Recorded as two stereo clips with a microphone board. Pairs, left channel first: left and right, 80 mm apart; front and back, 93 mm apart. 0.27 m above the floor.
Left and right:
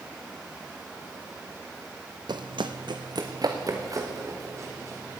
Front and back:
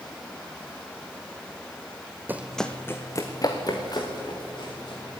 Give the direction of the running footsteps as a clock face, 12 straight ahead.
4 o'clock.